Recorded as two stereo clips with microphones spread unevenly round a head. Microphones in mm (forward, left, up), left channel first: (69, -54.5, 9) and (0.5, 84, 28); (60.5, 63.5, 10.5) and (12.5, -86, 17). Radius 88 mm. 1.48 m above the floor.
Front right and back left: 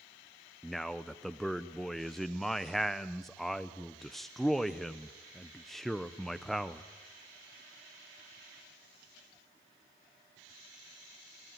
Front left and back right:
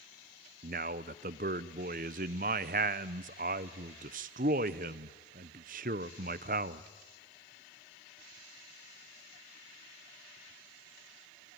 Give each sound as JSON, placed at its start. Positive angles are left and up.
{"t": 0.6, "sound": "a man speaking", "azimuth_deg": -155, "distance_m": 0.5}